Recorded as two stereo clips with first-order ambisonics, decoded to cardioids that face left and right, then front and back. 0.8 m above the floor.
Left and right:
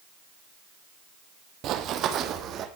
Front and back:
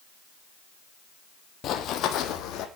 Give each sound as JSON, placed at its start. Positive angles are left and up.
{"t": 1.6, "sound": "running footsteps", "azimuth_deg": -50, "distance_m": 1.6}